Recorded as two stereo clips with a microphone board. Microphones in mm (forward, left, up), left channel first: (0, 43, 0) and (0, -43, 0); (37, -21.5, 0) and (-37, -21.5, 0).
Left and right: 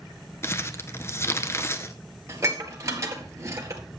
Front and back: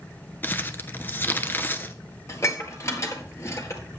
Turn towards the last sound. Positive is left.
turn(degrees=-40)